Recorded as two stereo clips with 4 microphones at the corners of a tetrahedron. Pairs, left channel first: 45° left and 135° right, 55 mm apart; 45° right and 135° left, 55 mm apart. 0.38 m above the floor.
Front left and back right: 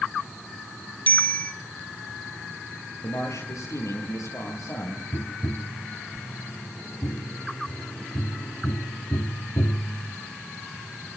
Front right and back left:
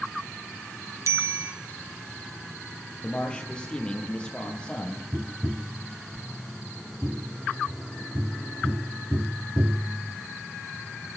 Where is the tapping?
85° left, 0.6 m.